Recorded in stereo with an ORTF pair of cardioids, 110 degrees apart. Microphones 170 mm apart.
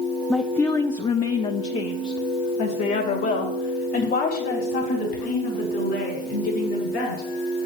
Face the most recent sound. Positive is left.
turn(degrees=75)